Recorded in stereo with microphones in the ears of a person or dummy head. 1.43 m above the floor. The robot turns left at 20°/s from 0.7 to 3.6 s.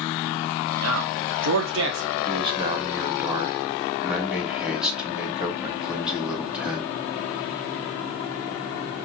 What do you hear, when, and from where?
0.8 s a man speaking: 75° right (ahead or behind), 0.8 m; by 2.1 s 60° right (ahead or behind), 0.8 m
2.2 s a man speaking: 30° right (ahead or behind), 1.2 m; by 6.9 s 5° right (ahead or behind), 1.2 m